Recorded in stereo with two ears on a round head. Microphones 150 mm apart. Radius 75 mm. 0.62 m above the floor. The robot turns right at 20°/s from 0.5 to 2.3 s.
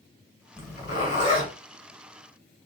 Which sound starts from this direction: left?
A zipper, at 0.6 s.